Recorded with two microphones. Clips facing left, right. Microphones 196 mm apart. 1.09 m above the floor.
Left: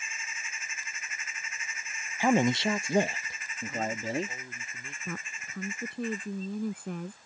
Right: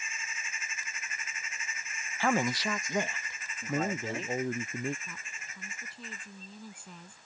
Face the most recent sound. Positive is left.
turn(degrees=60)  # may be behind; listen again after turning